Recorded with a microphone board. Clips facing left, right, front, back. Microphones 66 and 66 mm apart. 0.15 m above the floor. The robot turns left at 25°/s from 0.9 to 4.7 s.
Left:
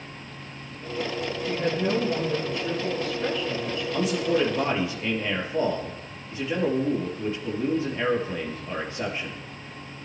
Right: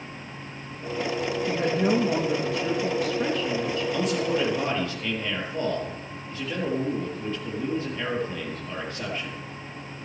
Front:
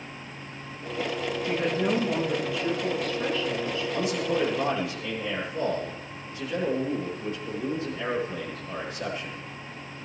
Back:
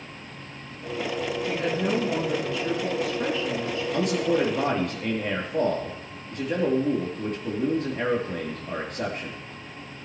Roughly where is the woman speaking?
Ahead right.